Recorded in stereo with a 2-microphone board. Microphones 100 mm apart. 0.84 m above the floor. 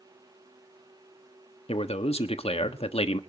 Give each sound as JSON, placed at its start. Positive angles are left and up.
{"t": 1.7, "sound": "a man speaking", "side_deg": 65, "distance_m": 1.2}